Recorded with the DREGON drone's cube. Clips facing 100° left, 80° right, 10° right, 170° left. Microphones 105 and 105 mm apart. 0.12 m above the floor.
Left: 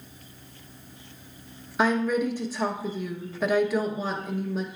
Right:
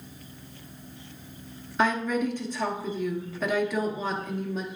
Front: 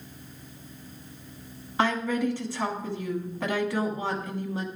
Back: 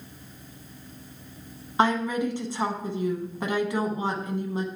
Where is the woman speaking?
170° left, 1.1 m.